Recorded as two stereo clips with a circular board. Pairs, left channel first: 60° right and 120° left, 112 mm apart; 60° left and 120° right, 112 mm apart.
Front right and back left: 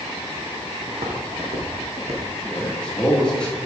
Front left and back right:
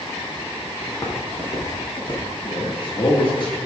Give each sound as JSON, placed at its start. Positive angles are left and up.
{"t": 0.9, "sound": "footsteps", "azimuth_deg": 115, "distance_m": 2.0}
{"t": 2.4, "sound": "a man speaking", "azimuth_deg": 20, "distance_m": 2.0}